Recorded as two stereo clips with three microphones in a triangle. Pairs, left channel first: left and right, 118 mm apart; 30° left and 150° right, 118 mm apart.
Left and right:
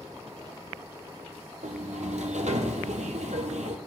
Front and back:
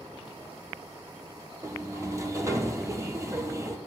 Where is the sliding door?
85° right, 1.0 m.